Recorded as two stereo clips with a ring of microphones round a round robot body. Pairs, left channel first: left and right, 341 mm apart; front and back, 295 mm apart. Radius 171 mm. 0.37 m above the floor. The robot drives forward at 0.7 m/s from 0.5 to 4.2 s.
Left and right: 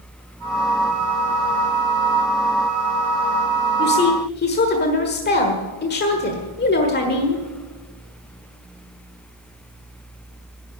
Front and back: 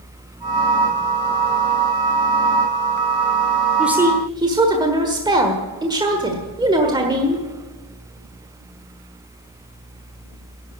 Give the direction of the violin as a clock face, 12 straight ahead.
I don't hear a violin.